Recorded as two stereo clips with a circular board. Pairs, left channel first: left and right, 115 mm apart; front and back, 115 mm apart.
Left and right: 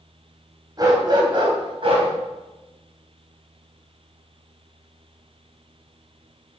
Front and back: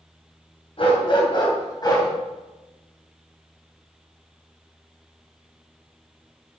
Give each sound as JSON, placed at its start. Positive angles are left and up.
{"t": 0.8, "sound": "a dog barking", "azimuth_deg": -35, "distance_m": 3.0}